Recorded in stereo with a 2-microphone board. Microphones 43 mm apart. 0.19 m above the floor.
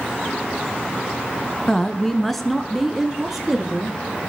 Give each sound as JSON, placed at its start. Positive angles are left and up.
{"t": 1.7, "sound": "a woman speaking", "side_deg": 15, "distance_m": 1.4}